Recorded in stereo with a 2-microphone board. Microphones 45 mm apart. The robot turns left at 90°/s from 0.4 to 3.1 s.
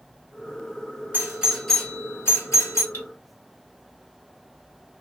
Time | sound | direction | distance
1.1 | a doorbell | 45° right (ahead or behind) | 2 m
2.9 | cutlery clinking | 55° left (ahead or behind) | 0.9 m